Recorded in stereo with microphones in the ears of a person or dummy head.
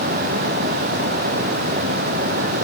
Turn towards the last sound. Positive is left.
No sound to turn to.